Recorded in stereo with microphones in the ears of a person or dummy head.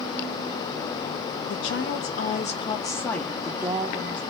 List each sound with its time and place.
1.5 s a woman speaking: 70° left (ahead or behind), 1.1 m; by 4.2 s 25° right (ahead or behind), 1.3 m